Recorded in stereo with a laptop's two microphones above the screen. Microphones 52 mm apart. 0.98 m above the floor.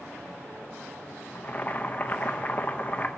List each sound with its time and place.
1.4 s boiling: 30° left (ahead or behind), 0.6 m